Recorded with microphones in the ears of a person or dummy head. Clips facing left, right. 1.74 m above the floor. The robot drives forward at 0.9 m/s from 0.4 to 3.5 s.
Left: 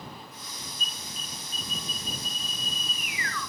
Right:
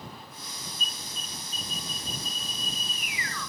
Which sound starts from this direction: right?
An alarm, at 0.8 s.